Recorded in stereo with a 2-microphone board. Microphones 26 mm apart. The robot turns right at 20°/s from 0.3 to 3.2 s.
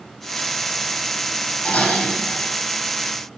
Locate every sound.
1.6 s dishes clattering: 60° left (ahead or behind), 3.5 m; by 2.5 s 75° left (ahead or behind), 3.5 m